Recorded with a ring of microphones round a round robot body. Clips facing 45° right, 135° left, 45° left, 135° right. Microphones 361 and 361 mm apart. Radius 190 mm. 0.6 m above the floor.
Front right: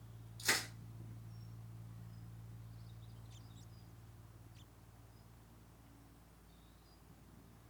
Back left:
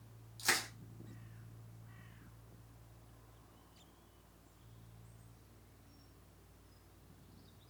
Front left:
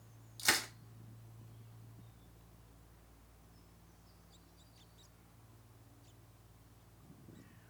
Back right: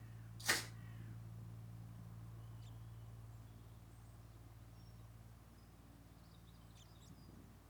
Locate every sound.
0.4 s crushing: 65° left, 1.1 m